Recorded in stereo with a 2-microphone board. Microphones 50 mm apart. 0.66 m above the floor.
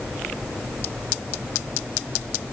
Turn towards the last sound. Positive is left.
No sound to turn to.